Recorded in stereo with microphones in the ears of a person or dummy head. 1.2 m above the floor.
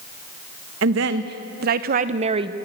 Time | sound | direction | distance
0.8 | a woman speaking | 70° right (ahead or behind) | 1.6 m